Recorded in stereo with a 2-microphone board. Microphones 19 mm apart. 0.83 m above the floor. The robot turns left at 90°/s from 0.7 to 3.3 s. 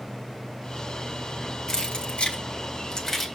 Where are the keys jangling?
35° left (ahead or behind), 1.9 m; by 3.3 s centre (ahead or behind), 1.9 m.